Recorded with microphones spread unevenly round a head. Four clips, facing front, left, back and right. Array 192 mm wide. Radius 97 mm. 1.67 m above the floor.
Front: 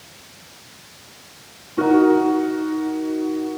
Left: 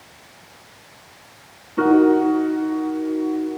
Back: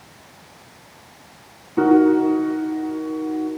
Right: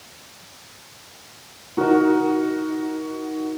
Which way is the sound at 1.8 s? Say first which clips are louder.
Left 2 dB, even; 160° right.